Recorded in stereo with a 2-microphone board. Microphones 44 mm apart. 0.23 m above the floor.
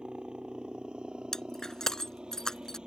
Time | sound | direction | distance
0.0 | a helicopter | 25° right (ahead or behind) | ?
1.3 | breaking glass | 15° left (ahead or behind) | ?